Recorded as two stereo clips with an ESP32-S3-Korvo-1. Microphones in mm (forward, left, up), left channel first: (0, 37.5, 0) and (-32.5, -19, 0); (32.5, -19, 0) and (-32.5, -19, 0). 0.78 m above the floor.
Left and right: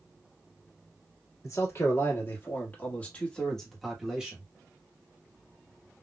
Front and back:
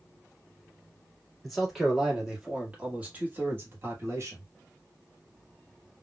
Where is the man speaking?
90° left, 1.7 m; by 4.5 s 170° left, 1.2 m.